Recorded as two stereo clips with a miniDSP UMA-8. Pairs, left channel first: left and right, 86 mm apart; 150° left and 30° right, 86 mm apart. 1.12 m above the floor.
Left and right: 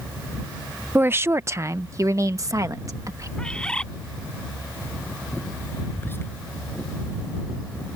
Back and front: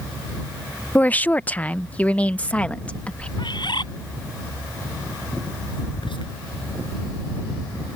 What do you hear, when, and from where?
0.9 s a woman speaking: 145° right; by 3.3 s 135° right
3.4 s a bird: 170° left
5.9 s whispering: 155° left